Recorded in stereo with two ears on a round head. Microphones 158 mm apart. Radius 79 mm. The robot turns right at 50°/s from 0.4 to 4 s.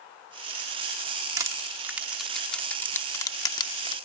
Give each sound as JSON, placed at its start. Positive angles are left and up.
{"t": 1.4, "sound": "crushing", "side_deg": -20}